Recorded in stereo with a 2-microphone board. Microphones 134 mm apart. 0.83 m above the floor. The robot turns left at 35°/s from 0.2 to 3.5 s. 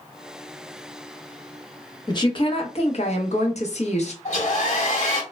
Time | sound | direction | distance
2.1 | a woman speaking | 140° left | 0.8 m
4.2 | a hair dryer | 55° left (ahead or behind) | 1.1 m